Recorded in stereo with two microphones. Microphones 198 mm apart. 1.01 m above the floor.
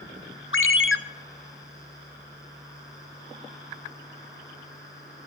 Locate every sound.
0.5 s a ringtone: 75° left (ahead or behind), 0.7 m